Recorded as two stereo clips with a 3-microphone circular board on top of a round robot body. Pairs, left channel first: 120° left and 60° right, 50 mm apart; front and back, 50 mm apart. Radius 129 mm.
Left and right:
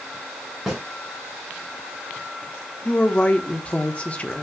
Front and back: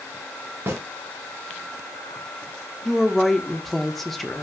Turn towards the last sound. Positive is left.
turn(degrees=85)